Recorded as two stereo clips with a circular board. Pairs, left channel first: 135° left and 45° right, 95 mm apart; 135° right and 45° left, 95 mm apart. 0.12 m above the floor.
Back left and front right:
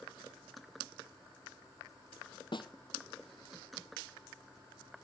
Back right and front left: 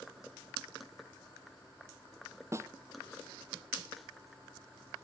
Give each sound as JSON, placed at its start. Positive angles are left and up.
{"t": 2.5, "sound": "a snare drum", "azimuth_deg": 105, "distance_m": 0.6}